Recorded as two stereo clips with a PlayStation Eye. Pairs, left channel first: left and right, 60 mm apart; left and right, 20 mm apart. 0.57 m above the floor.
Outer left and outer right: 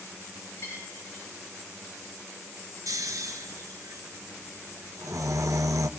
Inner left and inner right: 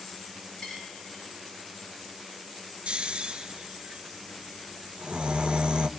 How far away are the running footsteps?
No running footsteps in this recording.